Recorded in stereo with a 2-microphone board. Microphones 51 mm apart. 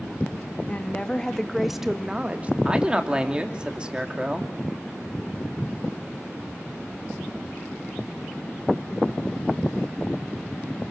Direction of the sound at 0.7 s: 25° left (ahead or behind).